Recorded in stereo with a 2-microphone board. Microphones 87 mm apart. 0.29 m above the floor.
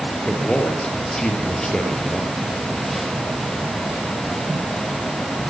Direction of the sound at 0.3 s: 5° left (ahead or behind).